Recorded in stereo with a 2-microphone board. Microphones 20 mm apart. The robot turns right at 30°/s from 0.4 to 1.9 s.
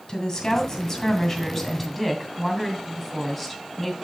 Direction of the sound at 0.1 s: 135° left.